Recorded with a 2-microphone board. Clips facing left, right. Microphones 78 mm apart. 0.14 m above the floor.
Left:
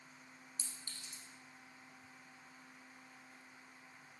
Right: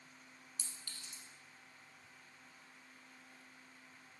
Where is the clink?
35° left (ahead or behind), 0.9 m.